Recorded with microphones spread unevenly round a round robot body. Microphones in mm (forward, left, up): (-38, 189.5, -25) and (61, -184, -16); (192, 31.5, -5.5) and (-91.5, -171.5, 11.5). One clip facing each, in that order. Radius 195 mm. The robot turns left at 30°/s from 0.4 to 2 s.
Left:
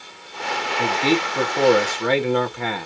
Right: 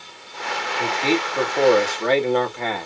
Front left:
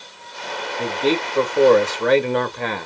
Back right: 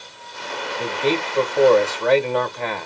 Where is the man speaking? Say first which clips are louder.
Left 1 dB, front left 2 dB; 95° left, 1.1 m; by 2.9 s 60° left, 1.1 m.